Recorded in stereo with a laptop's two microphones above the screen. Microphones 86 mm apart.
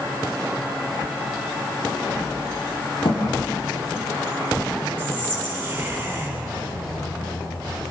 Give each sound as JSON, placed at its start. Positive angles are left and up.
{"t": 3.0, "sound": "a thud", "side_deg": 70, "distance_m": 6.0}
{"t": 5.0, "sound": "whispering", "side_deg": -25, "distance_m": 9.5}